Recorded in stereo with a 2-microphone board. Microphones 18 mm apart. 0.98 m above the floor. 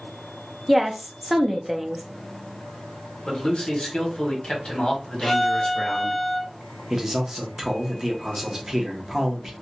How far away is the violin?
About 0.6 m.